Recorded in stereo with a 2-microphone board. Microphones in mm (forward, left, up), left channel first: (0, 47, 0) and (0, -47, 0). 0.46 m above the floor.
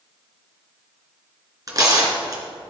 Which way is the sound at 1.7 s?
40° right (ahead or behind).